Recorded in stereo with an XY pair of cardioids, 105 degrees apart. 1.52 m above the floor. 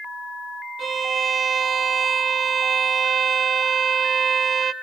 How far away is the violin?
About 0.7 m.